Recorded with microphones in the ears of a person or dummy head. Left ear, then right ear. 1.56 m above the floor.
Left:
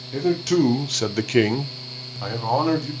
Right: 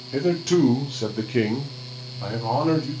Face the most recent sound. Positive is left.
turn(degrees=35)  # may be behind; listen again after turning